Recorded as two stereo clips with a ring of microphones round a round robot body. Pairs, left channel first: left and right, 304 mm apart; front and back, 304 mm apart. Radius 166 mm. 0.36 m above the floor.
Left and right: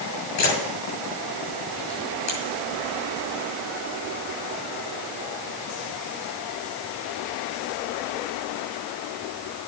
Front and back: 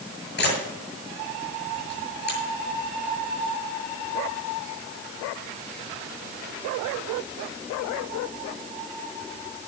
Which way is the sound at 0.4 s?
55° left.